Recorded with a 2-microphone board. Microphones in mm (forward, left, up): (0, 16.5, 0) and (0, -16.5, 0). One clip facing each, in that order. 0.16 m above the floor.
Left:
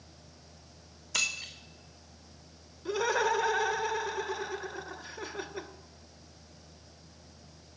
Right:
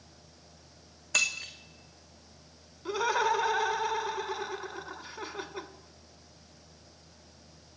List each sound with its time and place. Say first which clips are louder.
1.1 s breaking glass: right 3 dB; 70° right (ahead or behind), 1.7 m
2.9 s laughter: right 1 dB; 25° right (ahead or behind), 1.0 m